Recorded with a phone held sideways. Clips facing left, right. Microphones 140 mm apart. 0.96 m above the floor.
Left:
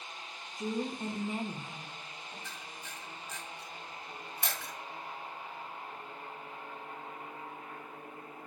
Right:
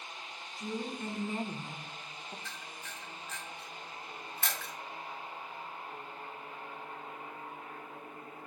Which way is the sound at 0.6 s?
50° left (ahead or behind).